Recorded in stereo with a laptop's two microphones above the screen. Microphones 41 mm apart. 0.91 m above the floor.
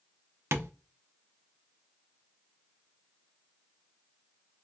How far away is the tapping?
About 0.5 m.